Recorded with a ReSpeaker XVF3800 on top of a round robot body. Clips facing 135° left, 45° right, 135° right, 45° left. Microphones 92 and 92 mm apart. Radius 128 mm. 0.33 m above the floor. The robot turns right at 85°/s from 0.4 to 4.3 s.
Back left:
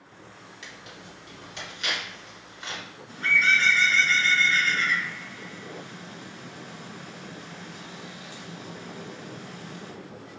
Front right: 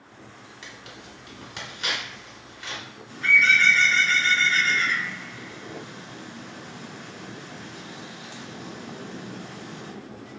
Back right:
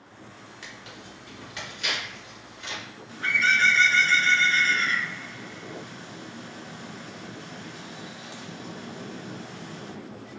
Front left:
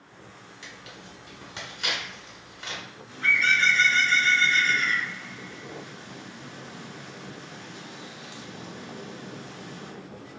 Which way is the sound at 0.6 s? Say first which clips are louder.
Front right 1 dB, back right 1 dB; 95° right.